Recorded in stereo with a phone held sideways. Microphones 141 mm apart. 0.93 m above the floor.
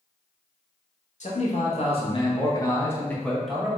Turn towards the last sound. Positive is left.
turn(degrees=-5)  # may be behind; listen again after turning